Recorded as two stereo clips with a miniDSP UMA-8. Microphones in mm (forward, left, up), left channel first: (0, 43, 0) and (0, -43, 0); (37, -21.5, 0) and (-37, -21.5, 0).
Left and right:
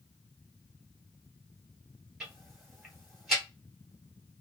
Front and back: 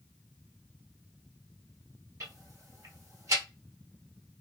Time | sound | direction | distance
2.2 | ticking | 175° right | 2 m